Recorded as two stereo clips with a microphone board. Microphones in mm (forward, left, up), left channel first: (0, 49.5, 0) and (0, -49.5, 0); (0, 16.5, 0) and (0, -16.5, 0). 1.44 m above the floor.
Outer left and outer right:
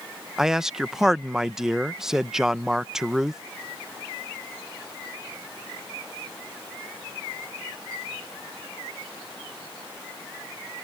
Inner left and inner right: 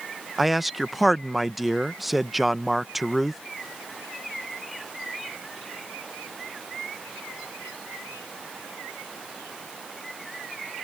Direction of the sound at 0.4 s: 5° right (ahead or behind).